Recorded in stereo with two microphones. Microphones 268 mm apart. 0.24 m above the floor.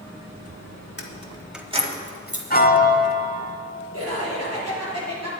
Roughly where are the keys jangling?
Left.